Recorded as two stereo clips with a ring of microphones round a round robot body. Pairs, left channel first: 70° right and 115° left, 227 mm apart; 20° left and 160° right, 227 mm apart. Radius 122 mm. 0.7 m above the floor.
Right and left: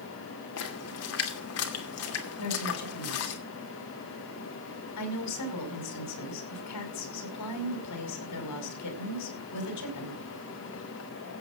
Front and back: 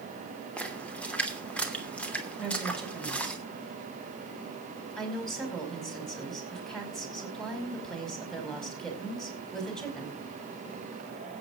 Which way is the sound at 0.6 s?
60° right.